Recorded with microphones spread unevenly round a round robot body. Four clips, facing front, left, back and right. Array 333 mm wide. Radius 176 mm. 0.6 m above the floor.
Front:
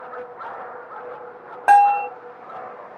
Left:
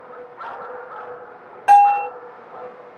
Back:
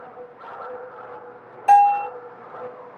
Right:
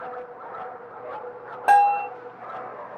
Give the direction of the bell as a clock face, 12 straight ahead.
12 o'clock.